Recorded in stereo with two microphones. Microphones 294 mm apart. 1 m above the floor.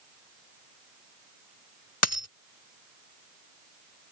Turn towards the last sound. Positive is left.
turn(degrees=55)  # may be behind; listen again after turning